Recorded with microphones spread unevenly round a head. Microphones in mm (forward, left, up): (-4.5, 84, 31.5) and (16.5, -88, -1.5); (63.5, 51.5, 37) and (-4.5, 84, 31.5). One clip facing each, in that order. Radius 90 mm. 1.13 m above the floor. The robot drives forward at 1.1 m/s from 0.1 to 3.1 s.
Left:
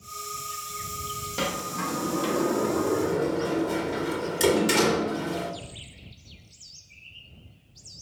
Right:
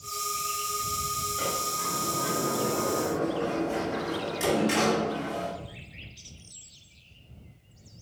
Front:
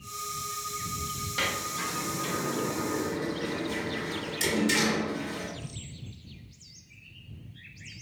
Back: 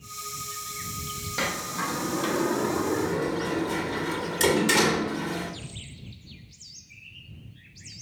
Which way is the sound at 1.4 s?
85° left.